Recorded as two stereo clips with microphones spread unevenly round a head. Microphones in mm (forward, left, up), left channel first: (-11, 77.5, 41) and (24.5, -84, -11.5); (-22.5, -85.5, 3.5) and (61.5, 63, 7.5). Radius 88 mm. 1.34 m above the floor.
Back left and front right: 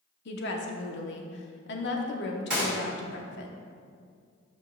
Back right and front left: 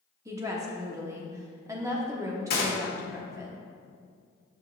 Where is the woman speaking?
135° left, 1.0 m.